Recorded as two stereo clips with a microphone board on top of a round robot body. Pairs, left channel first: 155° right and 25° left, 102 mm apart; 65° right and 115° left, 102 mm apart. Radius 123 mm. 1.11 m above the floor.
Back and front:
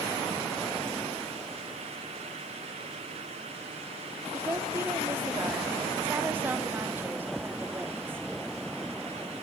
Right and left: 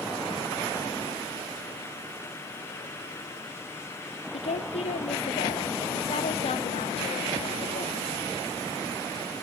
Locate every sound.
4.3 s a woman speaking: 50° right, 2.5 m